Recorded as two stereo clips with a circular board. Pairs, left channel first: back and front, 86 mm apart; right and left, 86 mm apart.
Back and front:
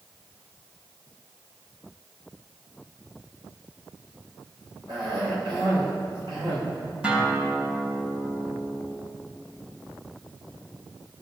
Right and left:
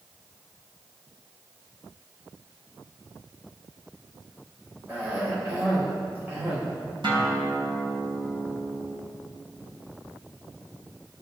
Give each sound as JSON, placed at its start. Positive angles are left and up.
{"t": 4.9, "sound": "a cough", "azimuth_deg": 25, "distance_m": 5.5}
{"t": 7.0, "sound": "a guitar", "azimuth_deg": 70, "distance_m": 4.5}